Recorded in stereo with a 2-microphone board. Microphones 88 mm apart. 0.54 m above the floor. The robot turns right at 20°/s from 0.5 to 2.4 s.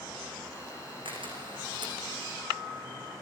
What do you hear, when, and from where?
1.1 s a camera shutter: 75° right (ahead or behind), 6 m; by 2.0 s 60° right (ahead or behind), 6 m